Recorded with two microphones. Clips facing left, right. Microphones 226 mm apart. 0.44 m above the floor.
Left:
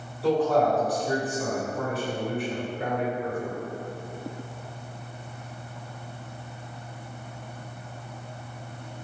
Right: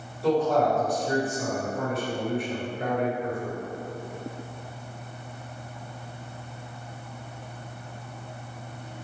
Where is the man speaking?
Centre (ahead or behind), 1.8 m.